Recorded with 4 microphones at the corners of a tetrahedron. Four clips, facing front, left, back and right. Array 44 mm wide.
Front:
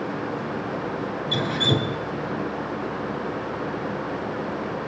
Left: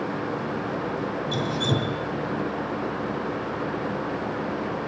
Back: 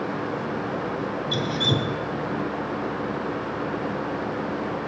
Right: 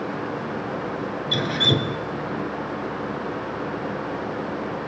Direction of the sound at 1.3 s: 65° right.